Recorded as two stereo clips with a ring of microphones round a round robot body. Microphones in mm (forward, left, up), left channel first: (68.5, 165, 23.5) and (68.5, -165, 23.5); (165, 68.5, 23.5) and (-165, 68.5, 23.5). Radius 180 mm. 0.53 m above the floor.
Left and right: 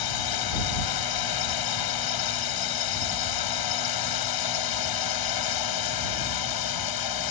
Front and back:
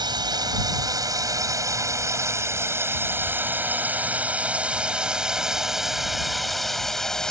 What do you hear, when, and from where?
0.0 s a drone: 105° left; by 7.3 s 90° left